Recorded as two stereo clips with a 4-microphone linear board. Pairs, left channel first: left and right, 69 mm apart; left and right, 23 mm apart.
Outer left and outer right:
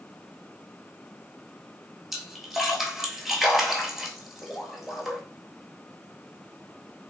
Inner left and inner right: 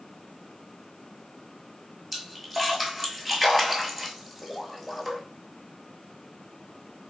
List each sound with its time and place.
2.1 s a splash: centre (ahead or behind), 0.7 m